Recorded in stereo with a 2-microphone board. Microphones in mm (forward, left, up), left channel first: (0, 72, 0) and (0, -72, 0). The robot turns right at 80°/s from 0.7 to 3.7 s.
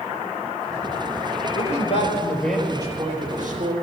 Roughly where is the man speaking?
Left.